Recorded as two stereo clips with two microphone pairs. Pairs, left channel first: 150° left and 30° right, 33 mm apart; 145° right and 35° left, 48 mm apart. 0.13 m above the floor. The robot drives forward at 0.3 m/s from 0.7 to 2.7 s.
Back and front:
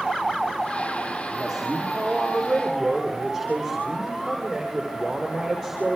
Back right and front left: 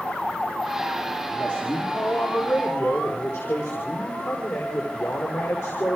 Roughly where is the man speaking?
Behind right.